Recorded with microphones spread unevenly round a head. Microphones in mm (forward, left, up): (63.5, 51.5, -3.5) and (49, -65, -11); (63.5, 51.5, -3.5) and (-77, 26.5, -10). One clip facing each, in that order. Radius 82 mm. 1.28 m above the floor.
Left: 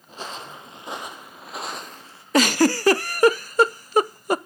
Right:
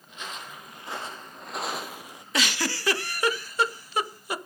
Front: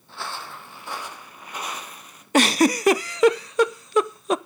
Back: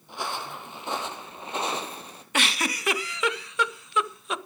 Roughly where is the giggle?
Ahead left.